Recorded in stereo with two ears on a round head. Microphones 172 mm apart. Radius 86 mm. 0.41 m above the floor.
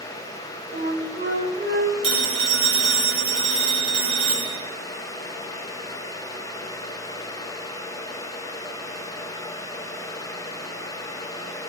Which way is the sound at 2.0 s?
80° right.